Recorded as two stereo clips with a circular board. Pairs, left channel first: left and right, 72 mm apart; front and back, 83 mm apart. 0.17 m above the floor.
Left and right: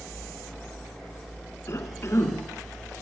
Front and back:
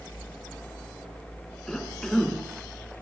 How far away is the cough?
About 1.8 m.